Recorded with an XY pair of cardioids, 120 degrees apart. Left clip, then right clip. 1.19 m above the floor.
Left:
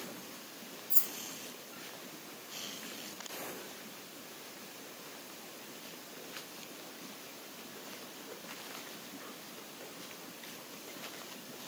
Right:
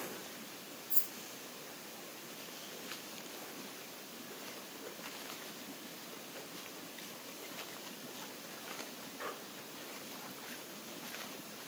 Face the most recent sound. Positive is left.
turn(degrees=35)